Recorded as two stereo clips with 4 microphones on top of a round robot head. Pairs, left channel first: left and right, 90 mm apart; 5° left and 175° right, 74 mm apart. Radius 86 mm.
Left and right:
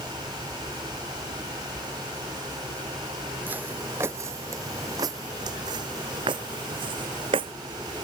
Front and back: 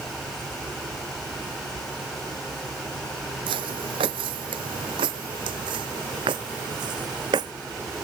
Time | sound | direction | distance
3.5 | footsteps | 165° right | ?